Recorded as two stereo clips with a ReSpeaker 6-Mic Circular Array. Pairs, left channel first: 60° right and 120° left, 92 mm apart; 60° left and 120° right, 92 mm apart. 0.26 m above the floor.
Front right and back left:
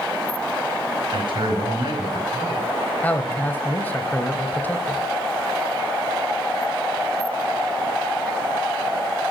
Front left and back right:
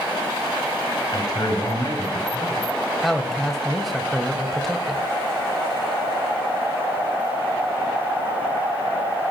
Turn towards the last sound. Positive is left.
turn(degrees=-25)